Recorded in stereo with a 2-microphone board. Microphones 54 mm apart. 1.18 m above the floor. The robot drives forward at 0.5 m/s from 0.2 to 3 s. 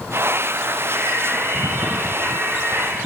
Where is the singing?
55° right (ahead or behind), 2.5 m; by 3.0 s 75° right (ahead or behind), 2 m.